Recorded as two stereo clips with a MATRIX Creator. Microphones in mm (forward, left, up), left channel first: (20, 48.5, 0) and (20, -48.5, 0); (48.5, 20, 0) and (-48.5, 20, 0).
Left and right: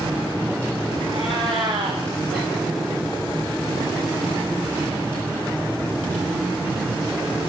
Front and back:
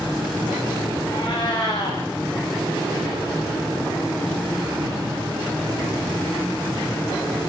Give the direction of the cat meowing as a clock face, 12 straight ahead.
1 o'clock.